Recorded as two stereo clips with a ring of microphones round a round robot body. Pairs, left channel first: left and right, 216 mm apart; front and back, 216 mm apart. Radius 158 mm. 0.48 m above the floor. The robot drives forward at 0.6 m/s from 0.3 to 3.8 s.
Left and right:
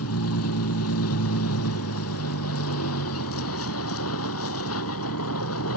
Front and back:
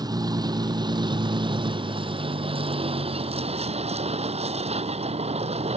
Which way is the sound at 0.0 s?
110° left.